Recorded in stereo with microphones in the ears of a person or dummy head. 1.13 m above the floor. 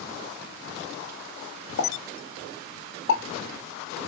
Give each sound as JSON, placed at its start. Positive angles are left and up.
{"t": 1.8, "sound": "a pop", "side_deg": 60, "distance_m": 0.9}